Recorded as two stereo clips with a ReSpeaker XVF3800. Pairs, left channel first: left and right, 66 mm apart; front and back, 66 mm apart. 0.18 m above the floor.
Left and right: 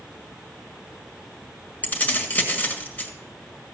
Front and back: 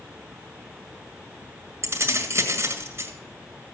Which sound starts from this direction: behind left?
Keys jangling, at 1.8 s.